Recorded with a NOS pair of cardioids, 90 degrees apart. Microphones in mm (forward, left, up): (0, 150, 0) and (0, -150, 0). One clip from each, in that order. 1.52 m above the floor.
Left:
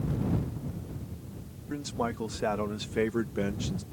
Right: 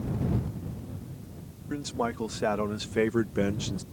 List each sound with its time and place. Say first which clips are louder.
1.7 s a man speaking: right 2 dB; 10° right; by 3.8 s 25° right